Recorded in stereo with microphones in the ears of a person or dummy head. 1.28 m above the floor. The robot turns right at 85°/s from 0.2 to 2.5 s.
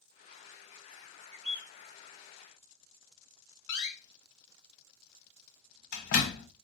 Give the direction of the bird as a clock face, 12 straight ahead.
5 o'clock.